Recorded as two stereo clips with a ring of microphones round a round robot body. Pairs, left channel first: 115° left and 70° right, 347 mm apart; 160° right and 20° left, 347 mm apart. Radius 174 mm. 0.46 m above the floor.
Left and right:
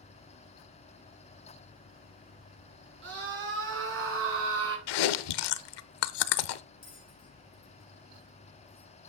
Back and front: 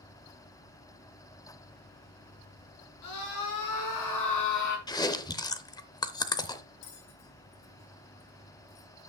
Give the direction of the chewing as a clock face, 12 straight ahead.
8 o'clock.